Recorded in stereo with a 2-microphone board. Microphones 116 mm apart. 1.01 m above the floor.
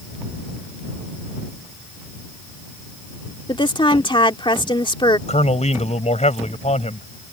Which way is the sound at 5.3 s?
75° left (ahead or behind).